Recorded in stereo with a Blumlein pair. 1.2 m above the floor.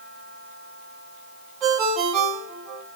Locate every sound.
1.6 s a ringtone: 30° right, 2.5 m